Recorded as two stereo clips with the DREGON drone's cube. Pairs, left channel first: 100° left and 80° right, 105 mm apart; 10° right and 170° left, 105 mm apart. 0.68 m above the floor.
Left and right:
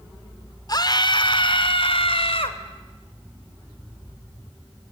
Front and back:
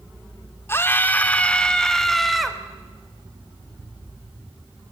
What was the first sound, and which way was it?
A scream, 55° left.